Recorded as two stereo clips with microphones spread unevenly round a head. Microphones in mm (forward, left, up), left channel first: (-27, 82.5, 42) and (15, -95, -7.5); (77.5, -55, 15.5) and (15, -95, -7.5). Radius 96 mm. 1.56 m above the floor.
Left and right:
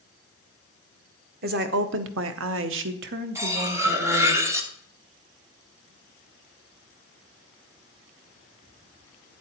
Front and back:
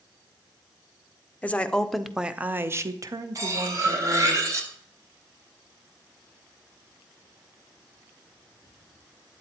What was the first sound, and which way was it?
A woman speaking, 40° right.